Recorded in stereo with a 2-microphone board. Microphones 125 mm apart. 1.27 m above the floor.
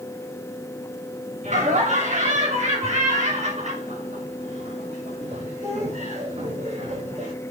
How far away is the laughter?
About 6.5 m.